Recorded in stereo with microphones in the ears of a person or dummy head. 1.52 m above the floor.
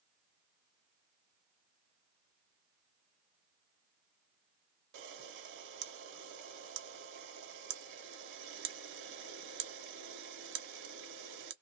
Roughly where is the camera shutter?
Right.